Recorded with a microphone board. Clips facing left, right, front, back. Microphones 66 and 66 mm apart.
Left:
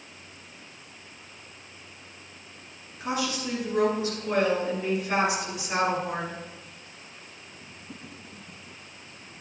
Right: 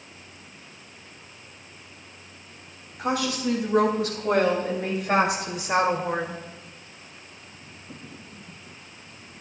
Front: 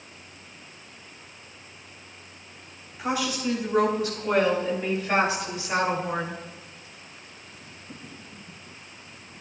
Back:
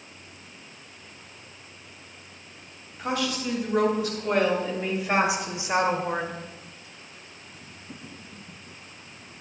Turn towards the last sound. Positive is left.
turn(degrees=-140)